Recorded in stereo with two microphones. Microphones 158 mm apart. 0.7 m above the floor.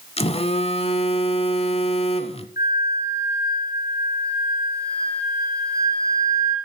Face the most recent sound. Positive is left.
turn(degrees=70)  # may be behind; listen again after turning